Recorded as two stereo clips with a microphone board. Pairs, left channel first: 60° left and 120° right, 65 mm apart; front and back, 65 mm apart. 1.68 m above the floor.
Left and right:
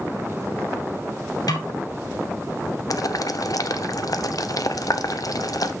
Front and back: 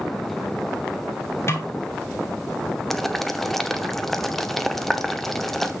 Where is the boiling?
85° left, 0.8 m.